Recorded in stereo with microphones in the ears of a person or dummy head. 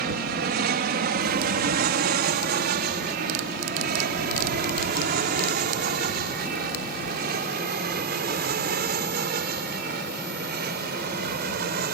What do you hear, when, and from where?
0.0 s an aircraft: 45° right (ahead or behind); by 11.9 s 50° right (ahead or behind)